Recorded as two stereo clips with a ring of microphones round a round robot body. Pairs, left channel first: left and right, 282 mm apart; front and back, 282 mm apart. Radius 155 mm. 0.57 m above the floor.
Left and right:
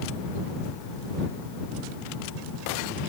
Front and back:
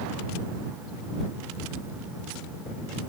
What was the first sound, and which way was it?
Only background noise.